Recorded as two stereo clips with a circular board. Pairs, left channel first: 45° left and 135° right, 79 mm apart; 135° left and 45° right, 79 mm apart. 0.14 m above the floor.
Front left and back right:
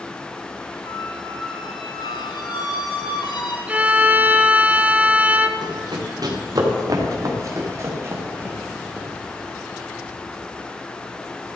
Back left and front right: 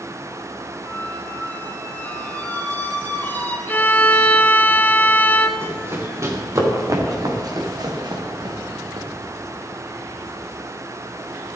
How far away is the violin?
About 0.9 m.